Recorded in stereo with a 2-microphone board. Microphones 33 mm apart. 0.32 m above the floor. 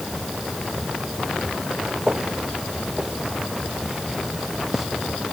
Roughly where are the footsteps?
Centre.